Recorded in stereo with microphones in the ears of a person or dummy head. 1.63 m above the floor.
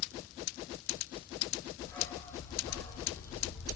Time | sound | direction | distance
1.8 | a dog barking | 15° left (ahead or behind) | 1.3 m